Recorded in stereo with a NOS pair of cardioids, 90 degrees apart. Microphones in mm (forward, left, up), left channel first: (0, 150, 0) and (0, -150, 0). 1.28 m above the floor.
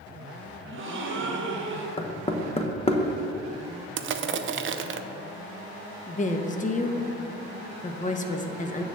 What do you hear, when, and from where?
0.7 s a gasp: 45° right, 1.3 m
2.0 s knocking: 20° left, 0.9 m
4.0 s crushing: 45° right, 0.6 m
6.1 s a woman speaking: 25° left, 0.9 m